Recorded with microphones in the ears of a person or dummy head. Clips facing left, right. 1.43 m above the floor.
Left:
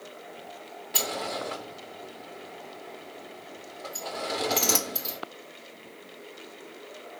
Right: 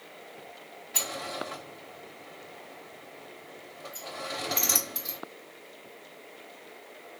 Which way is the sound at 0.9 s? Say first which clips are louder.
Left 4 dB; 60° left (ahead or behind).